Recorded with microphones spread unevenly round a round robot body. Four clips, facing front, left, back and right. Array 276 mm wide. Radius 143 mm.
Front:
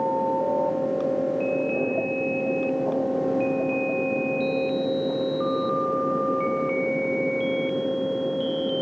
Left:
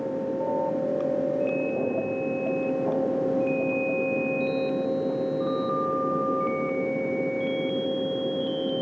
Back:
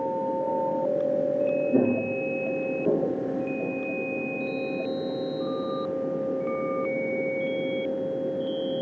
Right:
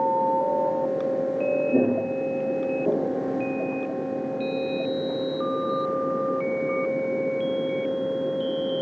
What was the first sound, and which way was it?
Footsteps, 140° right.